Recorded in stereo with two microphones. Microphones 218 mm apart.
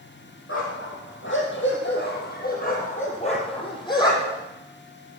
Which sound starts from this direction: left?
A dog barking, at 0.5 s.